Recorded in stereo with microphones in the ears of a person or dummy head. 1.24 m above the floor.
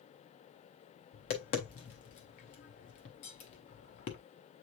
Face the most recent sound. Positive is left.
turn(degrees=35)  # may be behind; listen again after turning